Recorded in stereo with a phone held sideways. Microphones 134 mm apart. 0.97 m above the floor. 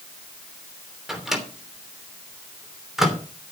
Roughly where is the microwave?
Centre.